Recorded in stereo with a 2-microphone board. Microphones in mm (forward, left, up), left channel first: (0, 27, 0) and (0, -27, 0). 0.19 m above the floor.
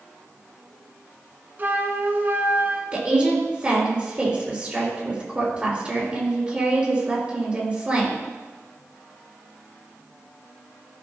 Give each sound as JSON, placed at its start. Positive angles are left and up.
{"t": 1.6, "sound": "a flute", "side_deg": -35, "distance_m": 1.2}
{"t": 2.9, "sound": "a woman speaking", "side_deg": -25, "distance_m": 3.5}